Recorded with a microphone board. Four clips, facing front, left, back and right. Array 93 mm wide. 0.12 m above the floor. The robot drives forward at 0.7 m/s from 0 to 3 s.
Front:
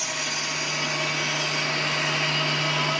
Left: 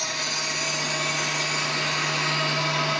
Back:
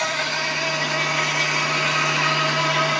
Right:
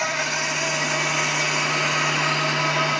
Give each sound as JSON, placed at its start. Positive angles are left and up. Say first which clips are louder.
{"t": 0.0, "sound": "an insect", "louder": "right 6 dB, back 7 dB", "azimuth_deg": -150, "distance_m": 1.2}